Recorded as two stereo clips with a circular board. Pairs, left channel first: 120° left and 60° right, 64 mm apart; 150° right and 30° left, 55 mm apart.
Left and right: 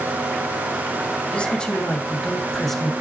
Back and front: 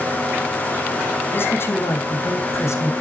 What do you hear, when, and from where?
1.3 s a man speaking: 175° right, 2.5 m; by 2.9 s 150° right, 3 m